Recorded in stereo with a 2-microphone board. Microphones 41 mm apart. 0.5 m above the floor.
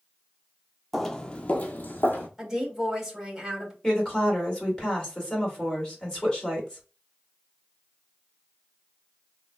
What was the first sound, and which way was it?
Footsteps, 5° left (ahead or behind).